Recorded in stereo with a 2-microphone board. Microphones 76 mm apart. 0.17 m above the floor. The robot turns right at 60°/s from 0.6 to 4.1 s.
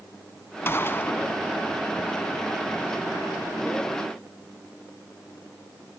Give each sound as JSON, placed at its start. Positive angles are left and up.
{"t": 0.7, "sound": "a gunshot", "azimuth_deg": 90, "distance_m": 0.6}